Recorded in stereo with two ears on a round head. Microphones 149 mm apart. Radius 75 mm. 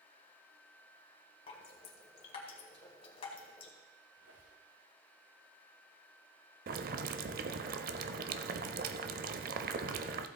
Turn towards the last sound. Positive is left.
turn(degrees=-60)  # may be behind; listen again after turning